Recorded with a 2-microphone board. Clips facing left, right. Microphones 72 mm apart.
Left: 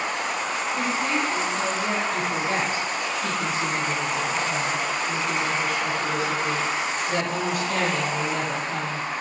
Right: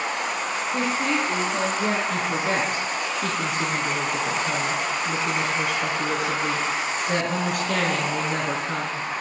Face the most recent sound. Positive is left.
turn(degrees=-60)  # may be behind; listen again after turning